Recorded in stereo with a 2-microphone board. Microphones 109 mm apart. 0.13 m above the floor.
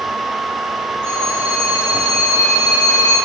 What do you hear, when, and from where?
1.0 s a phone ringing: 50° right (ahead or behind), 5.5 m